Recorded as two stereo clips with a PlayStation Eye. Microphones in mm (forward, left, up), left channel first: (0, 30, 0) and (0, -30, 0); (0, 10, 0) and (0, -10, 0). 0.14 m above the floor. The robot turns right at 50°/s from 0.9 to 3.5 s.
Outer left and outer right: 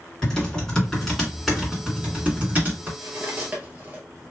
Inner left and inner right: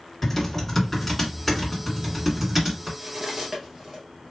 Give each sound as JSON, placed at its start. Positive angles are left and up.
{"t": 0.2, "sound": "typing on a keyboard", "side_deg": 10, "distance_m": 1.9}
{"t": 3.0, "sound": "cutlery clinking", "side_deg": -50, "distance_m": 1.5}